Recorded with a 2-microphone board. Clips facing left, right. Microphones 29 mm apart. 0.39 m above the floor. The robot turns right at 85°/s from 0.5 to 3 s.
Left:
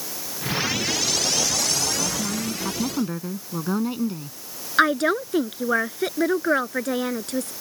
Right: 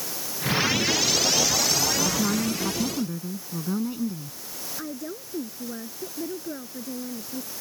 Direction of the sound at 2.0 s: 40° right.